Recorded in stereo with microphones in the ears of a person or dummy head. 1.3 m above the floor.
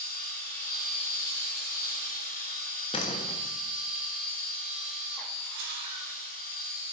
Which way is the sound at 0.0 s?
20° left (ahead or behind).